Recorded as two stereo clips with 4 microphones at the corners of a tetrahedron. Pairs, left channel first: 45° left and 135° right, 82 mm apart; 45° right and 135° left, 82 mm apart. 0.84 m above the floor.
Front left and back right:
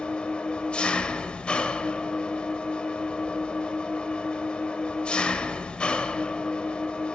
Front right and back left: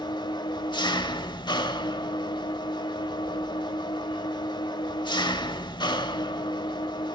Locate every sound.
0.0 s an engine running: 35° right, 1.2 m